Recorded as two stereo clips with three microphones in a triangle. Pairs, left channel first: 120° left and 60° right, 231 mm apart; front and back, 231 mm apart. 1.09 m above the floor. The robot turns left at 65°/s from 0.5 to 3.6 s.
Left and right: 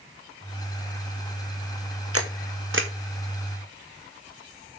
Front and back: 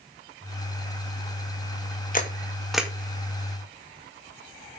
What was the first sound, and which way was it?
A camera shutter, 50° right.